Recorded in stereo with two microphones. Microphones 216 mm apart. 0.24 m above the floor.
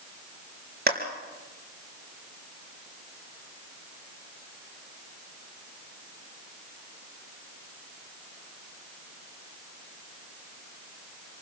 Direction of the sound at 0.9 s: 50° right (ahead or behind).